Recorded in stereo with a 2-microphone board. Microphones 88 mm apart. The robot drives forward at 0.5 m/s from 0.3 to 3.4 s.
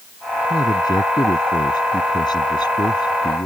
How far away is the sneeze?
I don't hear a sneeze.